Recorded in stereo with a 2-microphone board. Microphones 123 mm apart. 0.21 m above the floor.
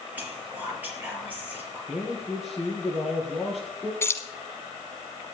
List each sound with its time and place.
0.1 s whispering: 15° right (ahead or behind), 5 m
1.9 s a man speaking: centre (ahead or behind), 4 m
4.0 s keys jangling: 20° left (ahead or behind), 1.2 m